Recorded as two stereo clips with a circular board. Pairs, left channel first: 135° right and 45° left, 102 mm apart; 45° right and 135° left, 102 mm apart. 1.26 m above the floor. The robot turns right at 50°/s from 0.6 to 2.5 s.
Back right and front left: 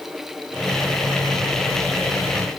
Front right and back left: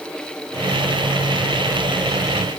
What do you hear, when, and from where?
Only background noise.